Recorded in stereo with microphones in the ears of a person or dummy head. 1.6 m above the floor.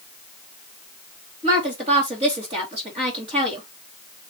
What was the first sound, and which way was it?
A woman speaking, 30° right (ahead or behind).